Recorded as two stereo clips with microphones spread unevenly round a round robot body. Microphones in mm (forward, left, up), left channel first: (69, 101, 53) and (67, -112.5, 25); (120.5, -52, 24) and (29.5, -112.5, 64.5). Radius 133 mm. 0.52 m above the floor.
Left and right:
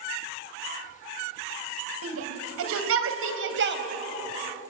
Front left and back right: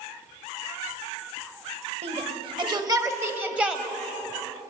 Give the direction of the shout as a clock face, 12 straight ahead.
4 o'clock.